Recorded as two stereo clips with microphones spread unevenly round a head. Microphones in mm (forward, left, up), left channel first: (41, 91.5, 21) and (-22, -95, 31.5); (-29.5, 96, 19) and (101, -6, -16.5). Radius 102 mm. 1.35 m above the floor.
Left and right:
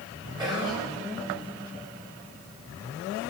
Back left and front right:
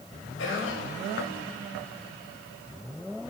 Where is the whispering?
165° left, 0.8 m.